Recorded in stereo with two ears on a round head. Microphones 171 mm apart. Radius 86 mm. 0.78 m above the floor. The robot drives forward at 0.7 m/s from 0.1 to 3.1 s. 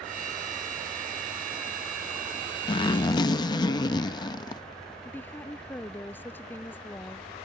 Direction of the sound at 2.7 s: 25° left (ahead or behind).